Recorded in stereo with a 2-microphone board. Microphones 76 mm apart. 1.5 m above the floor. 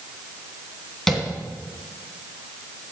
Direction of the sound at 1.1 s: 5° left (ahead or behind).